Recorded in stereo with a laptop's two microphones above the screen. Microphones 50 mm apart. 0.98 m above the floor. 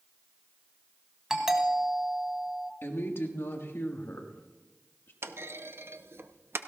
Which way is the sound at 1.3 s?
10° right (ahead or behind).